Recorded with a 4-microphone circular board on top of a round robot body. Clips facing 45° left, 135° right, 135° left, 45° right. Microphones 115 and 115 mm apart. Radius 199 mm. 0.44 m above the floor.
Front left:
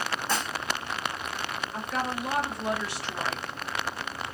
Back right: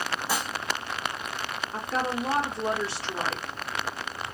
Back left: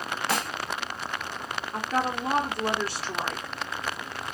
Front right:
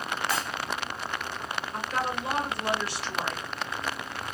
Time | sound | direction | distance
0.3 | dishes clattering | 145° left | 0.9 m
1.7 | a woman speaking | straight behind | 1.3 m